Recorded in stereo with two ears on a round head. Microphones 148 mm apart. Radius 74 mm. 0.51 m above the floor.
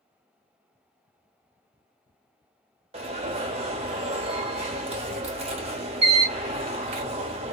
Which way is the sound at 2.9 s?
40° right (ahead or behind).